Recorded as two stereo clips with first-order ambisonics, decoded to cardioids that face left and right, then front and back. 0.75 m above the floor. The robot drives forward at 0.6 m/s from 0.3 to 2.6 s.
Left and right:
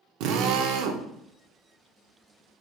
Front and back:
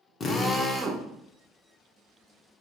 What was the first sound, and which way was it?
A drill, 65° right.